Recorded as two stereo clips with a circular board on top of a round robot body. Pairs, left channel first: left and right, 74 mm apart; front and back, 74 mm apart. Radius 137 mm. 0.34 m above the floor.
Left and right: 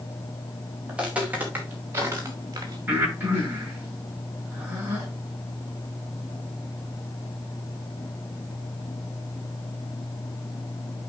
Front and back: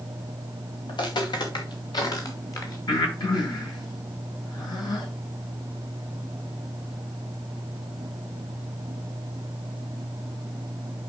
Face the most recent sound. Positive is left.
turn(degrees=-25)